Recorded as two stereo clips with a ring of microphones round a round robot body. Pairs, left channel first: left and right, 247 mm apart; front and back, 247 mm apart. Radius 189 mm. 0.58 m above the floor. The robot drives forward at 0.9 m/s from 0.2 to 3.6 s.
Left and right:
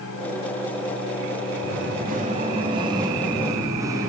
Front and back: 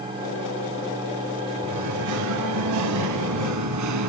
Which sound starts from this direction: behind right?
Singing, at 1.6 s.